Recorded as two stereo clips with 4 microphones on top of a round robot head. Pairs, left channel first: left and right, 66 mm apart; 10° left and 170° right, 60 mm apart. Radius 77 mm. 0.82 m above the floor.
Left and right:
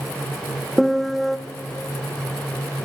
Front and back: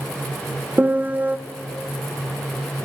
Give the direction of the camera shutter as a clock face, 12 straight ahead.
No camera shutter in this recording.